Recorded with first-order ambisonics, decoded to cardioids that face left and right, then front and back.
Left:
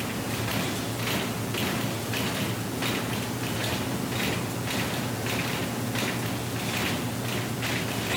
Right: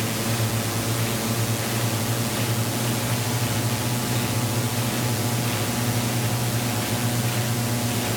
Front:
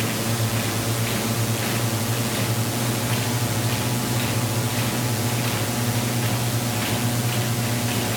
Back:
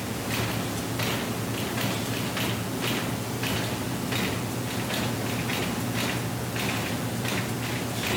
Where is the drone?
45° right.